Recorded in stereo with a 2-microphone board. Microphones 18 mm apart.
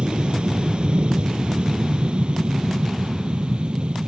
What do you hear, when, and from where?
0.0 s an aircraft: 65° right (ahead or behind)